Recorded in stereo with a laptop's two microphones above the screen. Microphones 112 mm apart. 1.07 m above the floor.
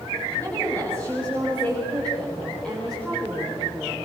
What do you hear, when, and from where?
0.4 s a woman speaking: 15° left (ahead or behind), 7 m; by 4.0 s centre (ahead or behind), 5 m